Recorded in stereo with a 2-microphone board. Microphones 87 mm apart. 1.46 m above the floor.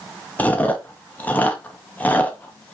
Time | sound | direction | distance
0.4 | chewing | 20° left (ahead or behind) | 0.7 m